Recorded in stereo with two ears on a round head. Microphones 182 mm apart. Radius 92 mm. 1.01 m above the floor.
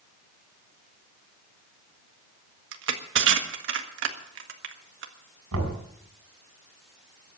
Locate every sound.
2.7 s crushing: 65° right (ahead or behind), 1.6 m
5.5 s knocking: 85° right, 5.5 m